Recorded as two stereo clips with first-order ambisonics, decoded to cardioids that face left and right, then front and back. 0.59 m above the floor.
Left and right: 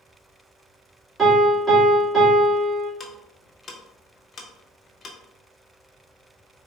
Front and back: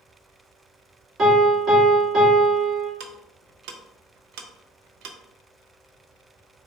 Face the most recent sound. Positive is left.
turn(degrees=160)